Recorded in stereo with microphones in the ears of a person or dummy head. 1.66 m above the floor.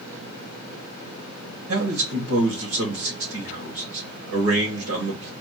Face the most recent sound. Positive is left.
turn(degrees=-75)  # may be behind; listen again after turning